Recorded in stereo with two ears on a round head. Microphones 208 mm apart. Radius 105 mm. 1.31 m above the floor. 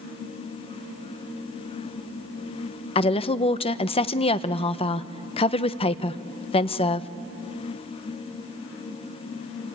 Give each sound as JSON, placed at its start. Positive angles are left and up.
{"t": 3.0, "sound": "a woman speaking", "side_deg": 25, "distance_m": 0.6}